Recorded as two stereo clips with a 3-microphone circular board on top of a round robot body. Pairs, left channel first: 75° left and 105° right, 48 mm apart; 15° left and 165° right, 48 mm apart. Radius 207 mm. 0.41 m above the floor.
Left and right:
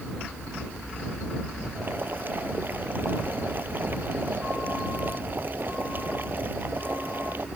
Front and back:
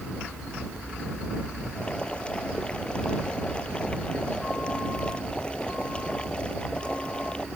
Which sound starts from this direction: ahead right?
Boiling, at 1.8 s.